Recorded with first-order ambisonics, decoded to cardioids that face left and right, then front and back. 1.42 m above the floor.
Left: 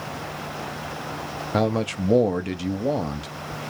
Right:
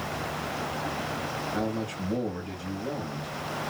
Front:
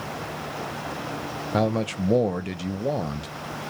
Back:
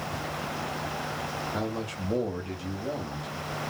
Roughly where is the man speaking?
Ahead left.